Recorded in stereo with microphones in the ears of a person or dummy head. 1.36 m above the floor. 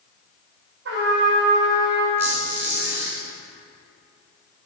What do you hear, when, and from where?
0.8 s a trumpet: 80° right, 3 m
2.2 s a squeak: 10° right (ahead or behind), 2 m